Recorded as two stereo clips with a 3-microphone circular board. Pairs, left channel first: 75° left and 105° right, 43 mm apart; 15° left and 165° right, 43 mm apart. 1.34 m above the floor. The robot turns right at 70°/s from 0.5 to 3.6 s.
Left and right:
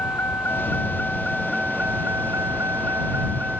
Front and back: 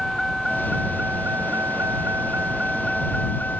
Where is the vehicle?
105° left; by 3.6 s 35° right.